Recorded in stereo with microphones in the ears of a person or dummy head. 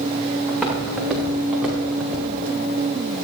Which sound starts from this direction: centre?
Footsteps, at 0.5 s.